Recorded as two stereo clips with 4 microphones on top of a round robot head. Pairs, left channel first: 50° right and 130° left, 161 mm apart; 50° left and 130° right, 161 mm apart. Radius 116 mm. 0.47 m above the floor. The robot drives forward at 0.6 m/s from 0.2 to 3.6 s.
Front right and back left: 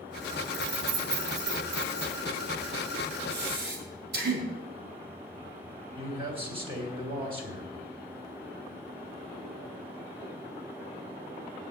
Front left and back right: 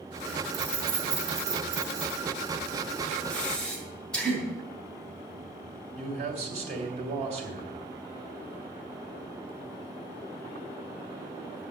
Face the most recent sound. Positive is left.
turn(degrees=-175)